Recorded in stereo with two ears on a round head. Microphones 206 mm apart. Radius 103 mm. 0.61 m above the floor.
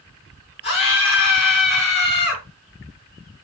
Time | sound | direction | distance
0.6 | a scream | 25° left (ahead or behind) | 5.5 m